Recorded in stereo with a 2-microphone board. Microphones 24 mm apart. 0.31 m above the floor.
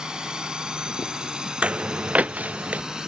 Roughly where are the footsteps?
Right.